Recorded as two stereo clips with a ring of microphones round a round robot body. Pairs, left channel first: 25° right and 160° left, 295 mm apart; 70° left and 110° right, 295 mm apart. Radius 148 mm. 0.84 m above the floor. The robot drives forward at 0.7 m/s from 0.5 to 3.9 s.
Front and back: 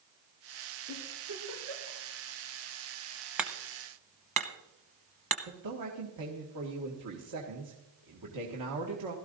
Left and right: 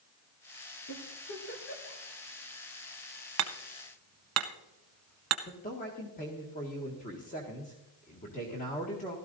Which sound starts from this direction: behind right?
Hammering, at 3.4 s.